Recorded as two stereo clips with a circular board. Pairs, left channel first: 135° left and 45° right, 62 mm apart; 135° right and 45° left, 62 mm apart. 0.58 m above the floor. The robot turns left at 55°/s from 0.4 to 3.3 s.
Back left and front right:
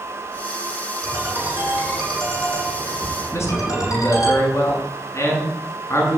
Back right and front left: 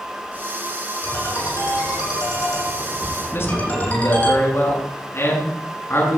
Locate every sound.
1.0 s a ringtone: 75° right, 9.5 m; by 4.3 s 160° left, 9.5 m
3.3 s a man speaking: 175° left, 7.5 m